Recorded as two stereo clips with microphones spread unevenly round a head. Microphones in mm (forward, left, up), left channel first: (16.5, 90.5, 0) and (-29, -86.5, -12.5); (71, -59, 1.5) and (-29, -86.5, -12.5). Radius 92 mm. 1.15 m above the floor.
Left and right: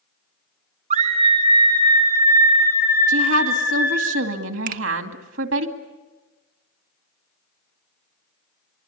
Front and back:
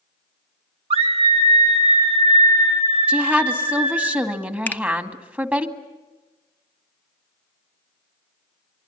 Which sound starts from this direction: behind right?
A scream, at 0.9 s.